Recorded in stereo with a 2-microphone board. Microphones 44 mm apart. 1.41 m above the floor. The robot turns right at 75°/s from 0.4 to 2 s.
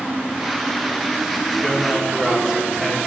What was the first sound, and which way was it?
A man speaking, 35° left (ahead or behind).